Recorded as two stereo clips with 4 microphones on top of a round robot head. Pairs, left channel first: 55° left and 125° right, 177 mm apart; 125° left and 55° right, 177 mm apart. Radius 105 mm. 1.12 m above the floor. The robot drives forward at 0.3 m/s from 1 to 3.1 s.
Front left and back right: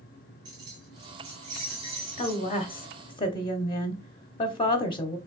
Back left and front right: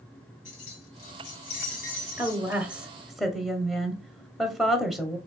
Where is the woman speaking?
15° left, 0.8 m; by 5.2 s 35° left, 0.6 m.